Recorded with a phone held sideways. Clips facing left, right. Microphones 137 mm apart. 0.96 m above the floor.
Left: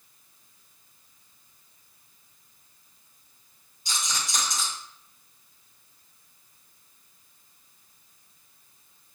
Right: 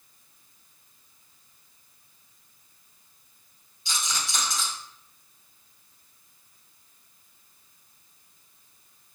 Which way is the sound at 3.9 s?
45° left (ahead or behind).